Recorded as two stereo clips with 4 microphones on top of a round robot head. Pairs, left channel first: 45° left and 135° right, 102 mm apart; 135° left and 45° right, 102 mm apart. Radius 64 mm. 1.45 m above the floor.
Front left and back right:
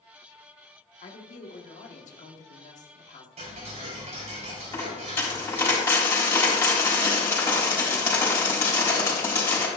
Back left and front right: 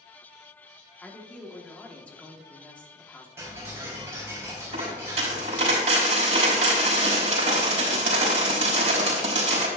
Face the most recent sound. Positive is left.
turn(degrees=-20)